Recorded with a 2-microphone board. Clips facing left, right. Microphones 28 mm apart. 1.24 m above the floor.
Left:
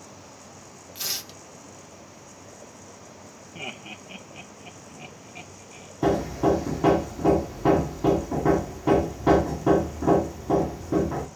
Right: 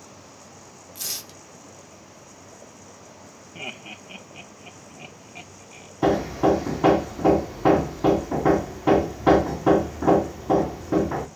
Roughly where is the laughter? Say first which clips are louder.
Right 1 dB; centre.